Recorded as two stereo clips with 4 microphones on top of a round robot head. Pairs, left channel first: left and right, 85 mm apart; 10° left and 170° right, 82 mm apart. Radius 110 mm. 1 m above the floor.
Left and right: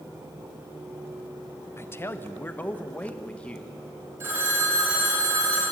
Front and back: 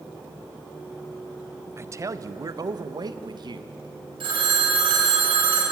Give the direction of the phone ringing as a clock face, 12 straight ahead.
5 o'clock.